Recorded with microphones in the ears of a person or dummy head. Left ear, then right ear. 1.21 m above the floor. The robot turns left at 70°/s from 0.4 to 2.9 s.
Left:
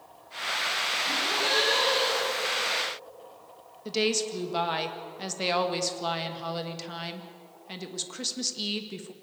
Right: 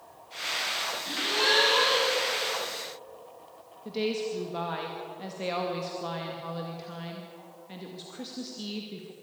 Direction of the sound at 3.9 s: 75° left (ahead or behind).